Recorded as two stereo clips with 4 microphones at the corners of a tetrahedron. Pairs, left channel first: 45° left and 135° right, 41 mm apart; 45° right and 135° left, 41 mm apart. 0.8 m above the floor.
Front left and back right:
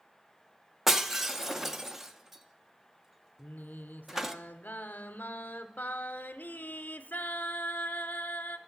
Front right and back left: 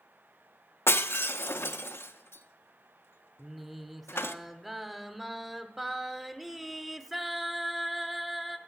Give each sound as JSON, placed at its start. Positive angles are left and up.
{"t": 0.9, "sound": "breaking glass", "azimuth_deg": -50, "distance_m": 0.6}
{"t": 3.4, "sound": "singing", "azimuth_deg": 55, "distance_m": 0.8}